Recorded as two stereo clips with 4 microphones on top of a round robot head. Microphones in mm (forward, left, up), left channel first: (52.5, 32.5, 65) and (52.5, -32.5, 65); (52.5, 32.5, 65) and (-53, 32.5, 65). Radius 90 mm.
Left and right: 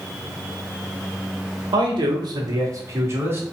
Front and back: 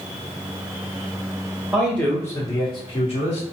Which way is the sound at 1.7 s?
95° right.